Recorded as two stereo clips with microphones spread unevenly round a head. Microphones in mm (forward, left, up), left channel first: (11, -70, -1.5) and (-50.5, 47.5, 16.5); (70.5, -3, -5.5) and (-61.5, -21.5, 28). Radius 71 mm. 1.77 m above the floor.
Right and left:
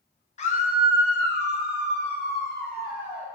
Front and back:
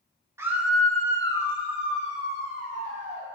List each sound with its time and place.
0.4 s a scream: 105° right, 0.8 m; by 3.3 s 25° right, 2 m